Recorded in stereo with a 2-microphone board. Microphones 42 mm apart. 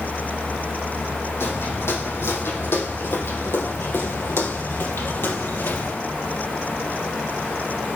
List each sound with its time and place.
1.4 s footsteps: 70° left (ahead or behind), 5 m; by 6.0 s 55° left (ahead or behind), 3 m